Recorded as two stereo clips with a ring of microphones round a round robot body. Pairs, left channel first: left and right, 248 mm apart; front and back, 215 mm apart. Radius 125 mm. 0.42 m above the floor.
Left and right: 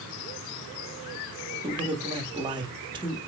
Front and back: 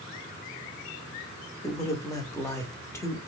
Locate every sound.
1.6 s a man speaking: 55° right, 0.8 m